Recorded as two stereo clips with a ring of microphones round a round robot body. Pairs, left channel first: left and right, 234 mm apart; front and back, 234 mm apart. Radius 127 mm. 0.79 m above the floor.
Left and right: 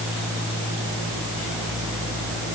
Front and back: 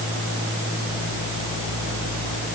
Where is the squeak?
I don't hear a squeak.